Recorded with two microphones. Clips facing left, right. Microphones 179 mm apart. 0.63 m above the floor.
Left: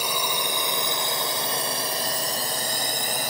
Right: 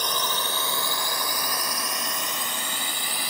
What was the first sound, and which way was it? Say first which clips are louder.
A drone: left 1 dB; 10° left (ahead or behind).